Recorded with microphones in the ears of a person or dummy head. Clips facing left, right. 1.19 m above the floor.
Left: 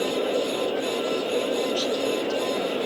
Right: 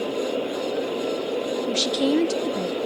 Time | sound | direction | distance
1.7 | a woman speaking | 20° right (ahead or behind) | 0.8 m